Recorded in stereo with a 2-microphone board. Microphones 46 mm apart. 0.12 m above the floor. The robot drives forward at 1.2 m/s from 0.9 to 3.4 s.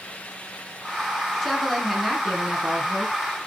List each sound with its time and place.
1.4 s a woman speaking: centre (ahead or behind), 1.6 m